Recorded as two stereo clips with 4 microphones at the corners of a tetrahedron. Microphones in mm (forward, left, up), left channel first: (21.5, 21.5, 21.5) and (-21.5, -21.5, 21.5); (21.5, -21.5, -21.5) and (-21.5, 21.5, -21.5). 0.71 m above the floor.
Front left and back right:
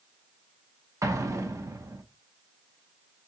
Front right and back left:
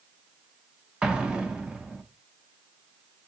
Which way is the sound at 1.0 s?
155° right.